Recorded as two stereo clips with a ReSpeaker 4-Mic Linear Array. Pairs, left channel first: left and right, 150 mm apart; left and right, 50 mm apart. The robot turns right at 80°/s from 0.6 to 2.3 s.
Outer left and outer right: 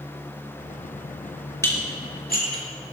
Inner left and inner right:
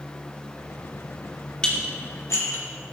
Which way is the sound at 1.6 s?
20° left (ahead or behind).